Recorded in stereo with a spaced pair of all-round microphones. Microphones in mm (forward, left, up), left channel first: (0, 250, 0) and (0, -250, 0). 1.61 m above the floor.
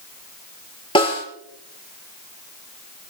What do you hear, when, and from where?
0.9 s a snare drum: 10° left (ahead or behind), 5 m